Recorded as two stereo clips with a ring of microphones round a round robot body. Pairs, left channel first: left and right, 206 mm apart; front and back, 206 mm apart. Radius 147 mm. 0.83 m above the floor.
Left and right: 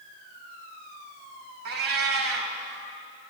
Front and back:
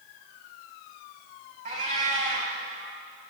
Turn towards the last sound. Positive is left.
turn(degrees=-115)